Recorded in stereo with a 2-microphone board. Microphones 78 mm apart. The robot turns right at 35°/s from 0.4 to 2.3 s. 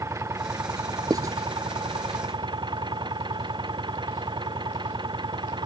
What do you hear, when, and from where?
0.0 s an engine running: 140° right; by 5.7 s 75° right
1.1 s writing: 50° right (ahead or behind); by 1.4 s 40° right (ahead or behind)